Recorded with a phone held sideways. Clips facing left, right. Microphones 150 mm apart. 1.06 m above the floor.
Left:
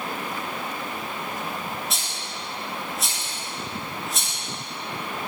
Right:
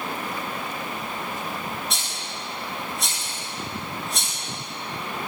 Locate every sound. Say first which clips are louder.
1.9 s a rattle: even; centre (ahead or behind), 3 m